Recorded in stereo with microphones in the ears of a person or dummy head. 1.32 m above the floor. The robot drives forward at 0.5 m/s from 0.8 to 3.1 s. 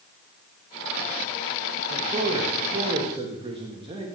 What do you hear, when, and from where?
1.9 s a man speaking: 45° right (ahead or behind), 1.5 m; by 4.0 s 30° right (ahead or behind), 2.0 m